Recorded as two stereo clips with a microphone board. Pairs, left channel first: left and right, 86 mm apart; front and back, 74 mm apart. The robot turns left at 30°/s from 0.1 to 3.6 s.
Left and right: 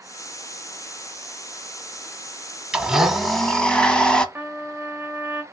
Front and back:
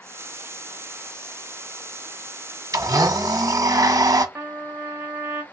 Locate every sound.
2.7 s a blender: 165° right, 0.8 m; by 4.2 s 170° left, 0.8 m
4.3 s a trumpet: 135° right, 1.2 m